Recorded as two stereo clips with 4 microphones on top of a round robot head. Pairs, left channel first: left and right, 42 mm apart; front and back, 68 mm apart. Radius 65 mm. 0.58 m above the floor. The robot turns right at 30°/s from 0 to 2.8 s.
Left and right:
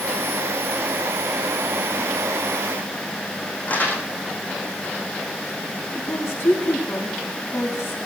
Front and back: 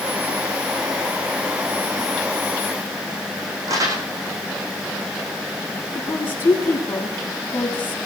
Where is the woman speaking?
60° left, 6 m.